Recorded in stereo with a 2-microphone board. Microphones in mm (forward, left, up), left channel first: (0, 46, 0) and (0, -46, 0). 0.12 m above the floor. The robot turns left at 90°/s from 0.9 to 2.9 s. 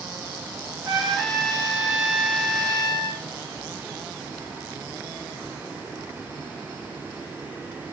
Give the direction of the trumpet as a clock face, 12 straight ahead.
2 o'clock.